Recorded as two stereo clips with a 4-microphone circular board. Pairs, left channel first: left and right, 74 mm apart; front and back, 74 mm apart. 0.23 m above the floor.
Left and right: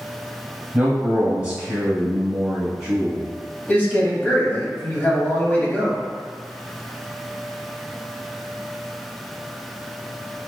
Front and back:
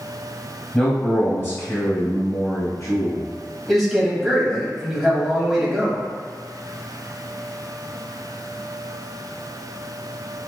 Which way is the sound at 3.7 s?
90° left.